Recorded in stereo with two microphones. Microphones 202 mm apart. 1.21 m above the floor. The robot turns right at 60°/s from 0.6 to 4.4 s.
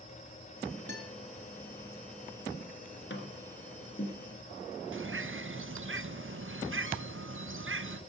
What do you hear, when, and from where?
0.9 s a guitar: 55° right (ahead or behind), 2.5 m; by 1.1 s 45° right (ahead or behind), 2.5 m
3.1 s tapping: 65° left (ahead or behind), 2.5 m; by 4.2 s 35° left (ahead or behind), 2.5 m
4.9 s a bird: 70° right (ahead or behind), 0.6 m